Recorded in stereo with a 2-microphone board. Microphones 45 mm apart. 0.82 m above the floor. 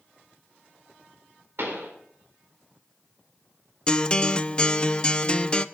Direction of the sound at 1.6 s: 65° right (ahead or behind).